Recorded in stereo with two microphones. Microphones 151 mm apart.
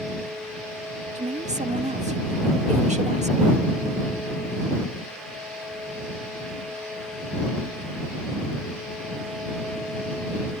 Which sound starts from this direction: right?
A woman speaking, at 1.1 s.